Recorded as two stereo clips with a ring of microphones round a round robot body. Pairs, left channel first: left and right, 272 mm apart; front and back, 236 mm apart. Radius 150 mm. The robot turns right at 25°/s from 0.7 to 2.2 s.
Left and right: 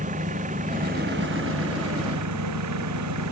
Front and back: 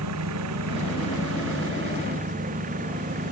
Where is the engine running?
155° right; by 3.3 s 115° right.